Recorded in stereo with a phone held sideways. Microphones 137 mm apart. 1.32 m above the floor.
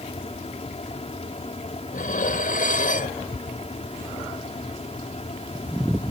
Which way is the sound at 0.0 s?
50° left (ahead or behind).